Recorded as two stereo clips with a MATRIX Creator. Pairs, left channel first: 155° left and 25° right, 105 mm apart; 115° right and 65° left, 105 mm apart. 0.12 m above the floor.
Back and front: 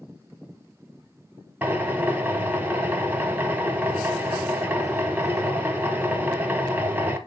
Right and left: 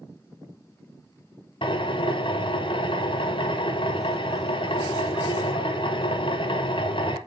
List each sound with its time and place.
1.6 s a drill: 95° right, 1.0 m